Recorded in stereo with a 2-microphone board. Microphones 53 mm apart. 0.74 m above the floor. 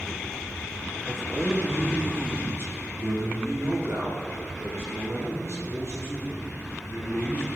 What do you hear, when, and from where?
1.1 s a man speaking: centre (ahead or behind), 1.2 m; by 7.5 s 70° right (ahead or behind), 4 m